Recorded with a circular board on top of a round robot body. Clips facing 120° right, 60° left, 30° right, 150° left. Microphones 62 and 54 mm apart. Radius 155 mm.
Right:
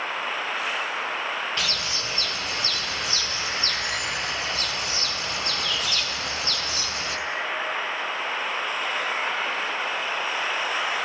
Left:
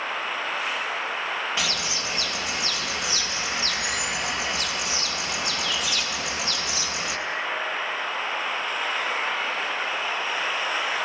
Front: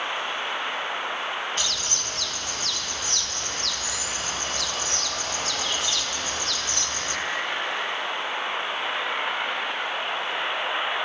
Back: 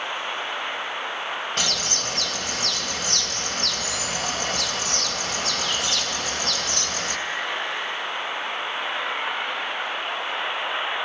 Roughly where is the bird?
Behind left.